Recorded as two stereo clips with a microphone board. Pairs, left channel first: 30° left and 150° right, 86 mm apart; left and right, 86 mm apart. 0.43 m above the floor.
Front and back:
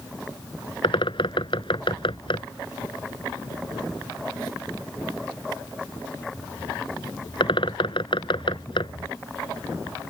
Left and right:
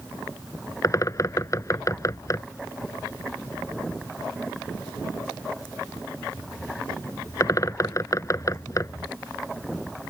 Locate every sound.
0.8 s a bird: 40° left